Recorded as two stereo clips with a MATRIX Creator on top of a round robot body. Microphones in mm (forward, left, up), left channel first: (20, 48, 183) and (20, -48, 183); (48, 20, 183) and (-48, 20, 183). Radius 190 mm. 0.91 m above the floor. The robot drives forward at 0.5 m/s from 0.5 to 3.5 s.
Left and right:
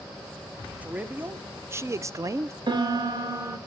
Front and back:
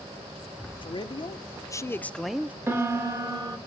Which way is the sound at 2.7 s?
120° right.